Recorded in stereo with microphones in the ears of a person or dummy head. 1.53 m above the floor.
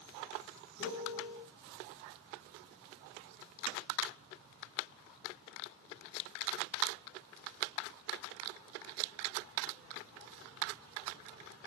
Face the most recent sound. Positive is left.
turn(degrees=70)  # may be behind; listen again after turning